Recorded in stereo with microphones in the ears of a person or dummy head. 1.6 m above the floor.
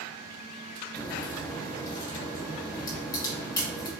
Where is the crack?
15° left (ahead or behind), 1.3 m.